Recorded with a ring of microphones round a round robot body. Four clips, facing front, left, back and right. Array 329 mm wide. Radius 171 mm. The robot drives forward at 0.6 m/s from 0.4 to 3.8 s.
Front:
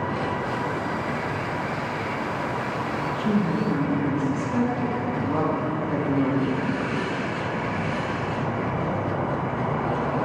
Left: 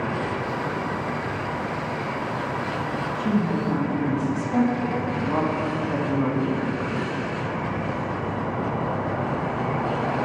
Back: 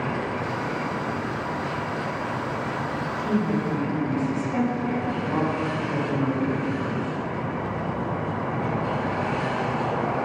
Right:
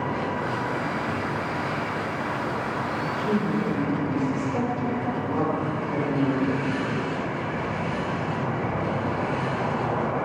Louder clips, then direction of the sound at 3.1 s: Left 1 dB, even; 95° left.